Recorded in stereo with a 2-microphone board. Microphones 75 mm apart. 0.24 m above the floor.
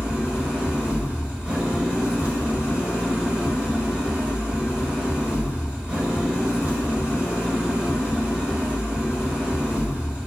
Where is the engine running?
15° right (ahead or behind), 1.3 m.